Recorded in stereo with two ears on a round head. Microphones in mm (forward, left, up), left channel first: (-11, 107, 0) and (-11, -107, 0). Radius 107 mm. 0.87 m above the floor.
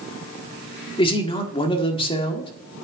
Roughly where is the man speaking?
Left.